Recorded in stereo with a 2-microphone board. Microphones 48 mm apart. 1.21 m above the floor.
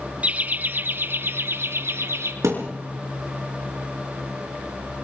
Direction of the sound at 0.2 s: 30° right (ahead or behind).